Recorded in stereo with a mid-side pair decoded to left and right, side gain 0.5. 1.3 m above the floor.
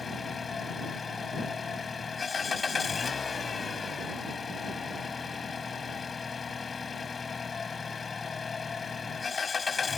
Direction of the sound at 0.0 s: 30° left.